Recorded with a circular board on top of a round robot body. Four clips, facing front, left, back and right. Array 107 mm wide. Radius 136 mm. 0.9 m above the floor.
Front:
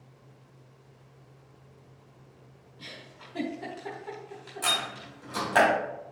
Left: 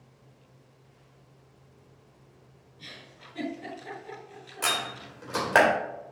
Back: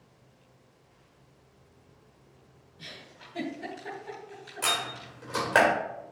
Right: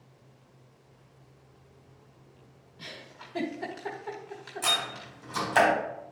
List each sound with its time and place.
2.8 s a giggle: 80° right, 1.3 m
4.6 s a door slam: 110° left, 3 m